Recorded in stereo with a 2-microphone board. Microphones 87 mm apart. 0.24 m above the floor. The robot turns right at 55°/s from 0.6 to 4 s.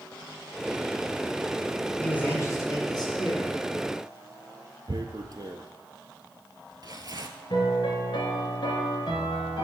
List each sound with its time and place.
2.0 s a man speaking: 15° left, 2.0 m; by 3.6 s 100° left, 2.0 m
4.9 s tearing paper: 50° right (ahead or behind), 0.7 m
7.5 s a piano: 70° left (ahead or behind), 1.4 m